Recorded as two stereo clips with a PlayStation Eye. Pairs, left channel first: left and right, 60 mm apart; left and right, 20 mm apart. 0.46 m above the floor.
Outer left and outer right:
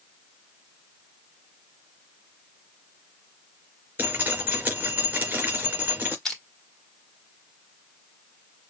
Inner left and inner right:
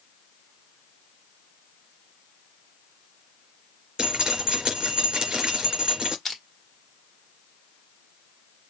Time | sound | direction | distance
4.0 | dripping | 30° right (ahead or behind) | 3.5 m
6.2 | crushing | 5° left (ahead or behind) | 1.7 m